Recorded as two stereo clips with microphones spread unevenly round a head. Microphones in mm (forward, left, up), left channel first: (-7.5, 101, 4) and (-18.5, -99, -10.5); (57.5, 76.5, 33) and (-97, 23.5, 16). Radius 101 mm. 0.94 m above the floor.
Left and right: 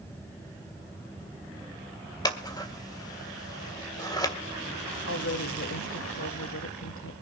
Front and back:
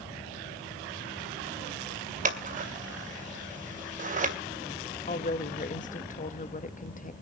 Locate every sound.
2.2 s scissors: 160° left, 2 m
5.1 s a woman speaking: 60° left, 1.5 m